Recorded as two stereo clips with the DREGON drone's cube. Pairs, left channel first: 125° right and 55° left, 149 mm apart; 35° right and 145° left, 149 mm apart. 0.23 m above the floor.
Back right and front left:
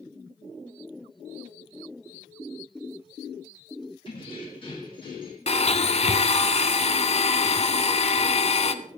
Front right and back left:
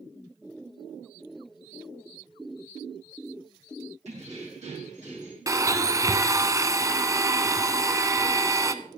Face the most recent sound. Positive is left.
turn(degrees=-150)